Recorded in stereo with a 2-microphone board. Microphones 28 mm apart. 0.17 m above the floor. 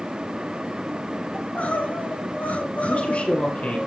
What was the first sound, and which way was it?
Crying, 65° left (ahead or behind).